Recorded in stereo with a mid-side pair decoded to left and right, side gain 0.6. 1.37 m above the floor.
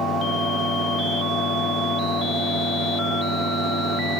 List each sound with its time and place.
0.0 s a fan: 65° right, 1.1 m